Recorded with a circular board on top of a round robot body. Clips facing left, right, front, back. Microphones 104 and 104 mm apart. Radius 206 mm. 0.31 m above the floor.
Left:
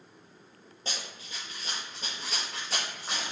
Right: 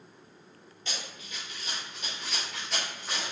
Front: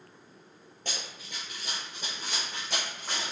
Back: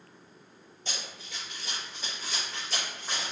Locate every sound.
0.8 s running footsteps: 35° left, 0.5 m; by 3.3 s 30° left, 1.8 m